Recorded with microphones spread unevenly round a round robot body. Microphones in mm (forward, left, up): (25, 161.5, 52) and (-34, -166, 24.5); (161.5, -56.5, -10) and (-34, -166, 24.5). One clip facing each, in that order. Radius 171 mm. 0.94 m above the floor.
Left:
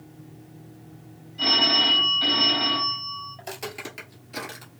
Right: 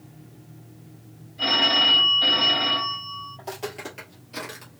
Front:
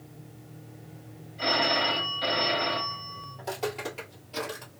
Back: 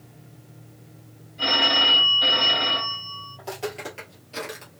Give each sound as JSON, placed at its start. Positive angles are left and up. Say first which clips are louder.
{"t": 1.4, "sound": "a phone ringing", "louder": "left 1 dB, back 1 dB", "azimuth_deg": 145, "distance_m": 1.5}
{"t": 3.4, "sound": "footsteps", "louder": "right 3 dB, back 1 dB", "azimuth_deg": 130, "distance_m": 1.5}